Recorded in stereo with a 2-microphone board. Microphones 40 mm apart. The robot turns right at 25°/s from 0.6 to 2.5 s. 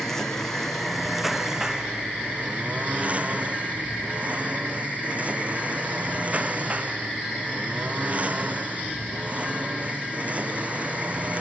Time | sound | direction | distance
0.0 | a lawn mower | 170° left | ?